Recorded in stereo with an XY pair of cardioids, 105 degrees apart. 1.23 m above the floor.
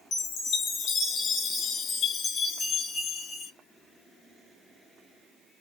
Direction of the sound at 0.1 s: 60° left.